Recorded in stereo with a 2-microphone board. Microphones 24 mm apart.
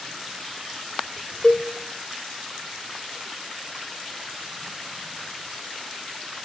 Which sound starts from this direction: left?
A cowbell, at 1.4 s.